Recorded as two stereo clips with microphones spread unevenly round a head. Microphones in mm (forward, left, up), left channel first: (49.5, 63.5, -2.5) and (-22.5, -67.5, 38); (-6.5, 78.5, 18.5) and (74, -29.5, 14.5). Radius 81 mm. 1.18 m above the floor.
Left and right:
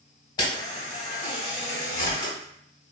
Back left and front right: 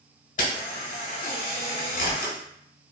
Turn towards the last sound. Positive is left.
turn(degrees=135)